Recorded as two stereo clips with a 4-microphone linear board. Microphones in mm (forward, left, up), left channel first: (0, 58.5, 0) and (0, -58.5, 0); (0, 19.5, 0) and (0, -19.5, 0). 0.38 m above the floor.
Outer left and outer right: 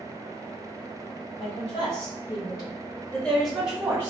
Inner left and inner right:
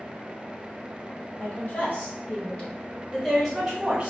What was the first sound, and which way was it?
A woman speaking, 55° left (ahead or behind).